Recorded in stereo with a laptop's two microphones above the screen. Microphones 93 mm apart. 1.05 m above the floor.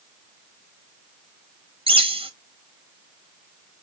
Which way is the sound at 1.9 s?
75° right (ahead or behind).